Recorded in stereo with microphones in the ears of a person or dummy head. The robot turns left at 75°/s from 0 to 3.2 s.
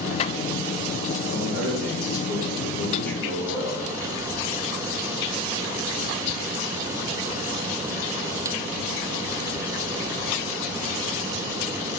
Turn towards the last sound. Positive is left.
turn(degrees=5)